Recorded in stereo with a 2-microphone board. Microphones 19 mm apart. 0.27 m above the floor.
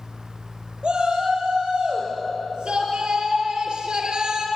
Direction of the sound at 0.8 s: 70° right (ahead or behind).